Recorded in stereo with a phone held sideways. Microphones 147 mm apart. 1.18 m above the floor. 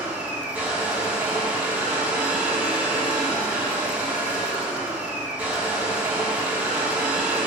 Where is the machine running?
10° right (ahead or behind), 1.5 m.